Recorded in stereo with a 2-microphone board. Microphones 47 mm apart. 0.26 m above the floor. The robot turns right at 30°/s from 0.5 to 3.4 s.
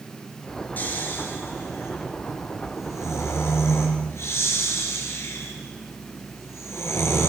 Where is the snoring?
35° left (ahead or behind), 4.5 m; by 7.3 s 60° left (ahead or behind), 4.5 m.